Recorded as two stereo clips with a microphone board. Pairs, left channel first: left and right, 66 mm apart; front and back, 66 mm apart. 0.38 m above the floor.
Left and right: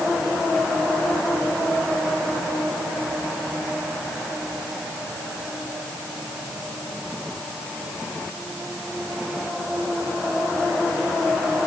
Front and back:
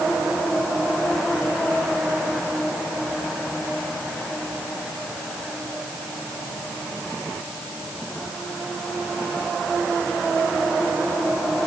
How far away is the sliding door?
No sliding door in this recording.